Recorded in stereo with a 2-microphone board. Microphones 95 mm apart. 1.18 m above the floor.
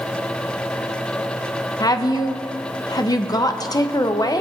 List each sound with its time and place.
1.8 s a woman speaking: 40° left (ahead or behind), 0.7 m